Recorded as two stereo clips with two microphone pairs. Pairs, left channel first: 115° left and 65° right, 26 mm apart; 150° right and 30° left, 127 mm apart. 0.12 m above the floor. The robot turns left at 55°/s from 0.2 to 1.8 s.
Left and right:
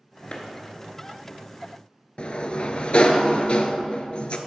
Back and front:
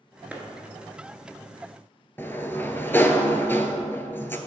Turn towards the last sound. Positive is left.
turn(degrees=140)